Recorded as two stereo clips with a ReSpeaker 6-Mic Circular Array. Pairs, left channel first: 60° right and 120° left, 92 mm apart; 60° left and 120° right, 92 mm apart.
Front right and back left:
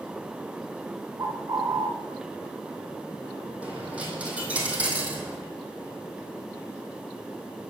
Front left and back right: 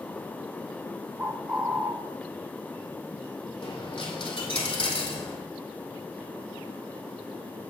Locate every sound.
1.2 s a bird: 170° left, 0.8 m
3.6 s a dropped coin: 45° left, 2.0 m